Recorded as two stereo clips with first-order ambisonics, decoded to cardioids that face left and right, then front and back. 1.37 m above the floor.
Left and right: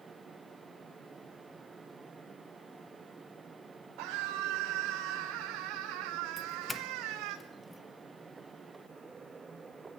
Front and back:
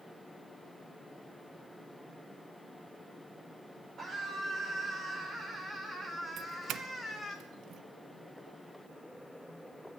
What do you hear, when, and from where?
4.0 s a scream: 115° right, 3.5 m; by 7.4 s 90° right, 2 m
6.4 s a doorbell: 165° left, 0.9 m